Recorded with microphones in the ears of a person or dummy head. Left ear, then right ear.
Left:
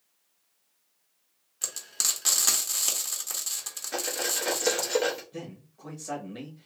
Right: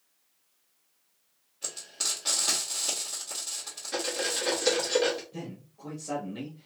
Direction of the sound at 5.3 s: 15° left (ahead or behind).